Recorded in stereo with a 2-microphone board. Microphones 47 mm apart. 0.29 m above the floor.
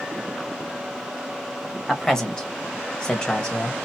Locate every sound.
1.9 s a man speaking: 10° left (ahead or behind), 1.1 m; by 3.8 s 20° left (ahead or behind), 1.1 m